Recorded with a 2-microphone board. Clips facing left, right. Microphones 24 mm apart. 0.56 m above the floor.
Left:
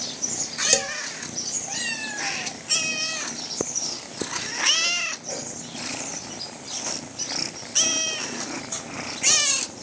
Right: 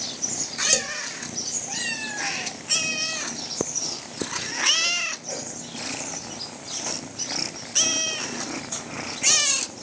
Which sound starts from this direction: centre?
A man speaking, at 0.7 s.